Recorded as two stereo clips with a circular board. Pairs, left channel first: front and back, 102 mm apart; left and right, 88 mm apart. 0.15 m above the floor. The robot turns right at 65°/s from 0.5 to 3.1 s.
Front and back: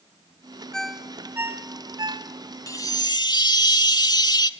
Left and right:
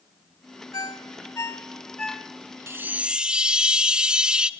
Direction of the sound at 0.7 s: 85° left.